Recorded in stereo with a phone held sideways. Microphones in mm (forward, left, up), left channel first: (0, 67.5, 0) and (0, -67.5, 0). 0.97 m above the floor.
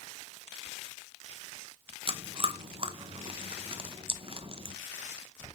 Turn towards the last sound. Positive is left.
turn(degrees=-45)  # may be behind; listen again after turning